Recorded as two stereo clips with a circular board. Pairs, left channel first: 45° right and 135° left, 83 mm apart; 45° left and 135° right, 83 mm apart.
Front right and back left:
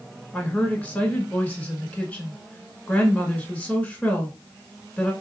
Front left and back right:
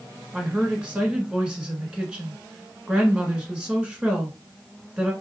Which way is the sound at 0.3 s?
80° right.